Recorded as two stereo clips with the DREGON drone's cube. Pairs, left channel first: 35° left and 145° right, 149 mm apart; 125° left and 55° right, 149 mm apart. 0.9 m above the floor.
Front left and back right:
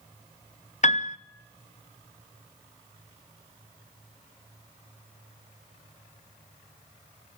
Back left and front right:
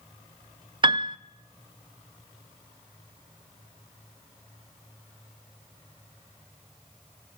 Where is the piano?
Straight ahead, 0.7 m.